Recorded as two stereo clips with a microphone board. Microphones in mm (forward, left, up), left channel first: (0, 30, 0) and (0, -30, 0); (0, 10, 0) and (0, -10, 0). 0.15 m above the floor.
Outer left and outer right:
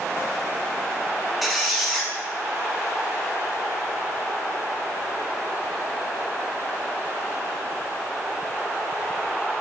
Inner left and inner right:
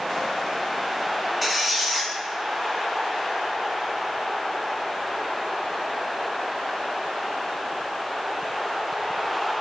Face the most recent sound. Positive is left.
turn(degrees=0)  # may be behind; listen again after turning